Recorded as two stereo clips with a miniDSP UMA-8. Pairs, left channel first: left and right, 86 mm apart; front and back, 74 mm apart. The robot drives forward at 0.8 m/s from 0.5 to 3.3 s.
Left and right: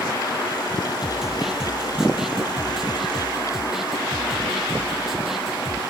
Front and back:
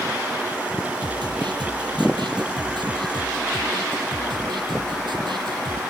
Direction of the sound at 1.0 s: 175° right.